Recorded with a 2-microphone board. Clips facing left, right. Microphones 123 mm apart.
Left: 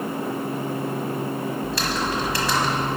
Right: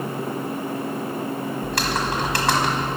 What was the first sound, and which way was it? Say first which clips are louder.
Typing on a keyboard: right 1 dB; 70° right (ahead or behind).